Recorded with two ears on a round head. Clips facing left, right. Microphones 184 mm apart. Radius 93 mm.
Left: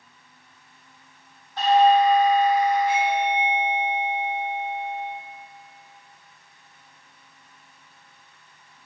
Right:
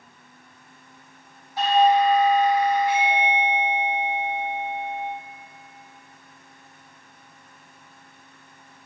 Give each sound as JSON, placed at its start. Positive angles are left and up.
{"t": 1.6, "sound": "a doorbell", "side_deg": -10, "distance_m": 1.1}